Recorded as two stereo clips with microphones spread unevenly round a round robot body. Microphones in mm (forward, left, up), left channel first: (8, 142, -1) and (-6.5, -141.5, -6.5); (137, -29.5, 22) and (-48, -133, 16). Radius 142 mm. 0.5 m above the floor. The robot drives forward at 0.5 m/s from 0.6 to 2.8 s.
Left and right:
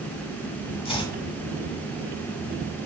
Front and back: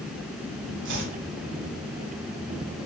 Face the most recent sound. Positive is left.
turn(degrees=170)